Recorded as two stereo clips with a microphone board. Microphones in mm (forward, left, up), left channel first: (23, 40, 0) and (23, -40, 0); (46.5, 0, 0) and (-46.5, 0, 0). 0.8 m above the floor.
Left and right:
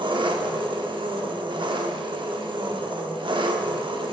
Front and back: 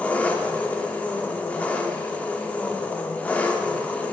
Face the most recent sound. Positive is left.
turn(degrees=-75)